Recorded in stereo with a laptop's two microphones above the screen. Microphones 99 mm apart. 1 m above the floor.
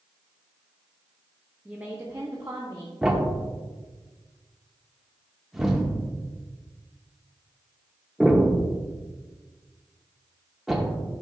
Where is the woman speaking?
10° right (ahead or behind), 0.8 m; by 2.9 s 50° right (ahead or behind), 1.2 m.